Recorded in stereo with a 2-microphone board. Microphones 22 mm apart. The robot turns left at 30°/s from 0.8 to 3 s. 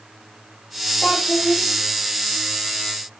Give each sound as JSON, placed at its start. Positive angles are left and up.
{"t": 1.0, "sound": "a child speaking", "side_deg": 80, "distance_m": 4.5}